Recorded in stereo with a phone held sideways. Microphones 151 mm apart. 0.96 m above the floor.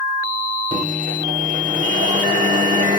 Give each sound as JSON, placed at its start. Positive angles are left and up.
{"t": 0.7, "sound": "a microwave", "side_deg": -60, "distance_m": 1.4}